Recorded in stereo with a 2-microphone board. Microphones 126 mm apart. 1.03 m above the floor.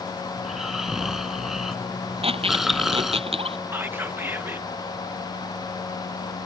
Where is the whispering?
15° right (ahead or behind).